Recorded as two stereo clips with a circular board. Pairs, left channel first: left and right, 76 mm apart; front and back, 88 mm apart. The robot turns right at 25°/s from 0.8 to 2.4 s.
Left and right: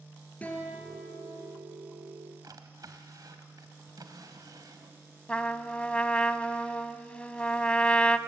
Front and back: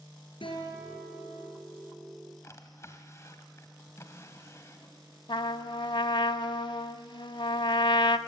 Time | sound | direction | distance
0.4 | a guitar | 20° left | 4 m
2.4 | a drawer | 55° right | 1.5 m
5.3 | a trumpet | 15° left | 0.6 m